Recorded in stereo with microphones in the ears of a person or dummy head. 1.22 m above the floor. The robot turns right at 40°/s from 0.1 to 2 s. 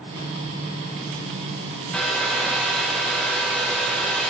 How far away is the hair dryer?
About 1.3 m.